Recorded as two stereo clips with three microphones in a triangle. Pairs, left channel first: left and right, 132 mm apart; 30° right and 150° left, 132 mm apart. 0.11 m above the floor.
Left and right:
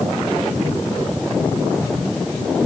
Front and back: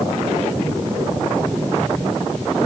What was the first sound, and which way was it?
Only background noise.